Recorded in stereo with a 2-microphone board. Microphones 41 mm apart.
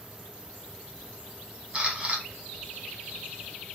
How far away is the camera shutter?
About 0.7 m.